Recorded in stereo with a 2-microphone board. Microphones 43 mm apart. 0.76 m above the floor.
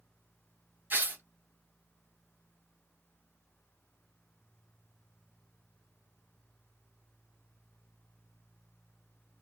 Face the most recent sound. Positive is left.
turn(degrees=-45)  # may be behind; listen again after turning